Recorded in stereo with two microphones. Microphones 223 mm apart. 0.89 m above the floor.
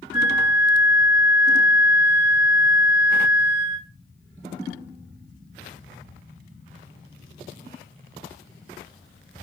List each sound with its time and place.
0.1 s a flute: 50° left (ahead or behind), 2.5 m